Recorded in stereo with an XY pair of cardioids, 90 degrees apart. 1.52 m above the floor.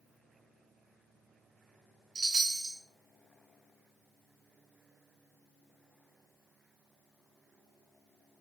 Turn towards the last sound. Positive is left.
turn(degrees=-35)